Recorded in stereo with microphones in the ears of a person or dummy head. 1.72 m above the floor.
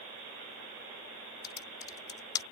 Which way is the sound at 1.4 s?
25° left (ahead or behind).